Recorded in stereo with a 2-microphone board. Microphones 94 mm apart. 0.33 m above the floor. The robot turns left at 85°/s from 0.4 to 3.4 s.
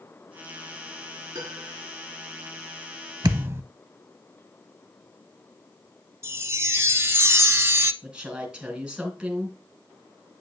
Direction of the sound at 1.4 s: 125° right.